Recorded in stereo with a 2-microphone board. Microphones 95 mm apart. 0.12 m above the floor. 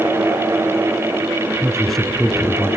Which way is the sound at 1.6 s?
Centre (ahead or behind).